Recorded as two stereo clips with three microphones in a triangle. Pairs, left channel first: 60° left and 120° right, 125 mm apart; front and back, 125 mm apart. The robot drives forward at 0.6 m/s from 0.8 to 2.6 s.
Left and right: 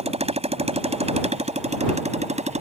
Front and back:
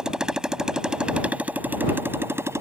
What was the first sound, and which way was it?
A motorcycle, 95° right.